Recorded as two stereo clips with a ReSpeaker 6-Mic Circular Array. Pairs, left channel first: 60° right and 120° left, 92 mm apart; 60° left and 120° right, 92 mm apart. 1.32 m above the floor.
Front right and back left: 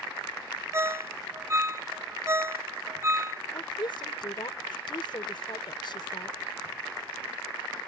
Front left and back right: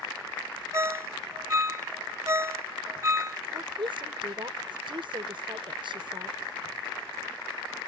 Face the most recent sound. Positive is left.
turn(degrees=-95)